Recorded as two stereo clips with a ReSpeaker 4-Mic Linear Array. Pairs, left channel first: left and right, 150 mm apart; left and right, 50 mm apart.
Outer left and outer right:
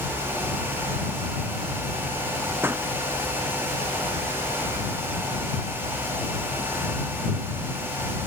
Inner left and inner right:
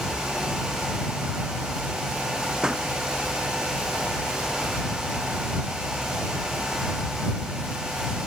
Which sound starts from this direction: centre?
A pop, at 2.6 s.